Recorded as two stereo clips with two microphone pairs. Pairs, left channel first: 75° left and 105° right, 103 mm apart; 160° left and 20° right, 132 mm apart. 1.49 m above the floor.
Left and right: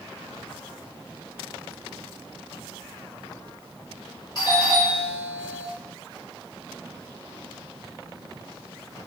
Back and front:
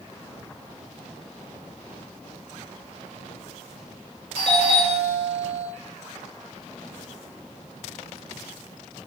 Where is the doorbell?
120° left, 2.5 m.